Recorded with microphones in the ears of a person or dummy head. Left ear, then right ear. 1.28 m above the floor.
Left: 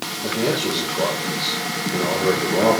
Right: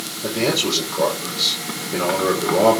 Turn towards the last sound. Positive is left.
turn(degrees=-65)  # may be behind; listen again after turning